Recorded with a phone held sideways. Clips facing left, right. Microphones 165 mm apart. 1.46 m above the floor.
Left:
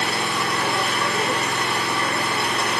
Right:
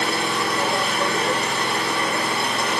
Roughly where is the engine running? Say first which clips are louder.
Right 2 dB; right.